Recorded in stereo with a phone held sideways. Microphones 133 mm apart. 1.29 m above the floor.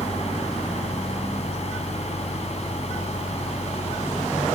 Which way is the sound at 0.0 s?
55° left (ahead or behind).